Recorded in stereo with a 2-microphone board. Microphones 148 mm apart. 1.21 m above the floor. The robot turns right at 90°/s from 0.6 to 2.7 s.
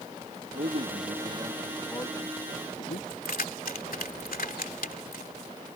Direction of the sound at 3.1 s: 75° left (ahead or behind).